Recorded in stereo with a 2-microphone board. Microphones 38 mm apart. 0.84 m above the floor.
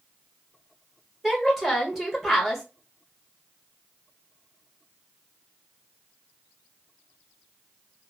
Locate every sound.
1.2 s a woman speaking: 10° right (ahead or behind), 1.2 m